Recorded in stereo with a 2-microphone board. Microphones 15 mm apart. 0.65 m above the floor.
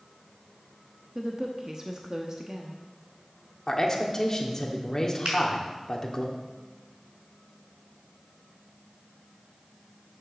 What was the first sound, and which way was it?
A woman speaking, 30° right (ahead or behind).